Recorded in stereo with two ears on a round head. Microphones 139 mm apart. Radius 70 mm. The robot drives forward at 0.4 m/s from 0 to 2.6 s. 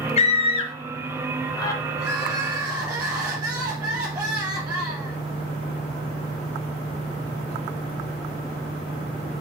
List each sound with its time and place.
0.2 s a scream: 45° left (ahead or behind), 0.6 m; by 1.8 s 20° left (ahead or behind), 1.1 m
2.0 s crying: 20° right (ahead or behind), 1.6 m; by 5.2 s 25° right (ahead or behind), 1.4 m